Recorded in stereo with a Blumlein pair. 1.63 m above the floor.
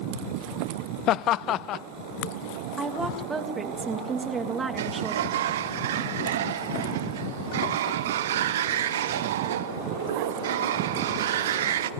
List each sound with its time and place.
1.1 s laughter: 35° left, 0.7 m
2.8 s a woman speaking: 10° right, 2 m
4.8 s a sliding door: 60° right, 0.8 m